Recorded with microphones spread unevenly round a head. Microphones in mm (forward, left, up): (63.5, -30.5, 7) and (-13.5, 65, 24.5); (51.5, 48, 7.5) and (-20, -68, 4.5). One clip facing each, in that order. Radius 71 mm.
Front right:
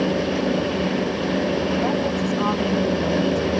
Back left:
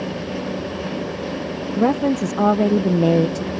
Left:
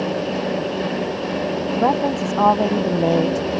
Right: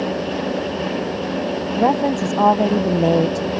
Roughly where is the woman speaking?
Behind.